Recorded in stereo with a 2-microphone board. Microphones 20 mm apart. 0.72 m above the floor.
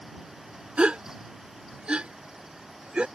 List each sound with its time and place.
0.8 s a gasp: 75° right (ahead or behind)